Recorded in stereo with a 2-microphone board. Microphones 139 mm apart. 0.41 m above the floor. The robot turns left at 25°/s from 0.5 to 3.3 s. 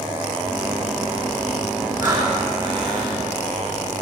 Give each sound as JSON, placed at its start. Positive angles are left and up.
{"t": 2.0, "sound": "breathing", "side_deg": -30, "distance_m": 5.0}